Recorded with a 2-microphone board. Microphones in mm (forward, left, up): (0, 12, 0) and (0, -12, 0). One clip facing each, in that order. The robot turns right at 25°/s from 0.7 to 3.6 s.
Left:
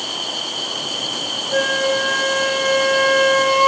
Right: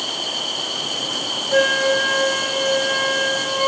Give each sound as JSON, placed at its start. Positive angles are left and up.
{"t": 1.5, "sound": "a flute", "azimuth_deg": -10, "distance_m": 1.1}